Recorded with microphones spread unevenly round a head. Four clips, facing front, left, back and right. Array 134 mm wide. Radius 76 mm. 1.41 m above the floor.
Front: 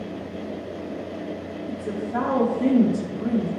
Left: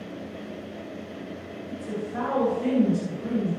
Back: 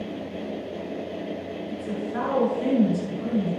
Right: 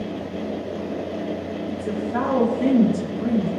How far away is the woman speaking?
About 1.4 m.